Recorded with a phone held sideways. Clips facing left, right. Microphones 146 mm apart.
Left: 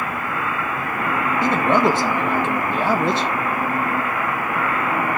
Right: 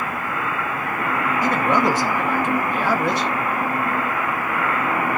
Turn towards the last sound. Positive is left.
turn(degrees=25)  # may be behind; listen again after turning